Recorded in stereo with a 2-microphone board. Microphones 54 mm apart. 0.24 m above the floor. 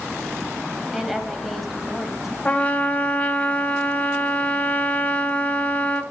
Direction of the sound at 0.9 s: Centre (ahead or behind).